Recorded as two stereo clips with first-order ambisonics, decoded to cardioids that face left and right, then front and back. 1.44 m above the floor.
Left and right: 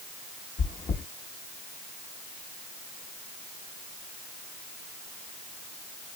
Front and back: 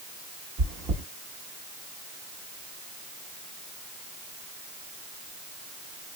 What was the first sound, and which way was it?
Chewing, 150° left.